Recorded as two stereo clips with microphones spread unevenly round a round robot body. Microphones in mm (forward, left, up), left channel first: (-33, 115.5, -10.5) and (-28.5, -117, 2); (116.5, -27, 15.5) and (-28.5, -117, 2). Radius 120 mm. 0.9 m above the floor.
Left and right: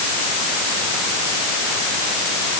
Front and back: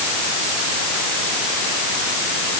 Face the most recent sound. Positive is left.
No sound to turn to.